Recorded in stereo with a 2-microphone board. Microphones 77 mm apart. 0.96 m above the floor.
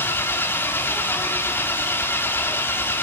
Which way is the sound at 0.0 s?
30° left (ahead or behind).